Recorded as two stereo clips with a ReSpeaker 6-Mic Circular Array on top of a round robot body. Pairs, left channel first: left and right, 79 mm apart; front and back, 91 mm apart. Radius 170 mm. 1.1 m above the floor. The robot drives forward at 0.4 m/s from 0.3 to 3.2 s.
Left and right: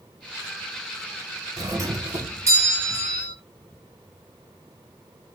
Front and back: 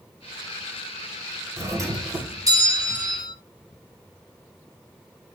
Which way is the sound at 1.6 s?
130° right.